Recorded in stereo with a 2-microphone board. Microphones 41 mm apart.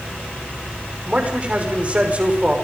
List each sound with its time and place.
1.1 s a man speaking: 35° right (ahead or behind), 5.5 m